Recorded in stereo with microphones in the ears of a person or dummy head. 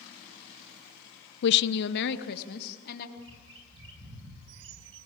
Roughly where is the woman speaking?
Left.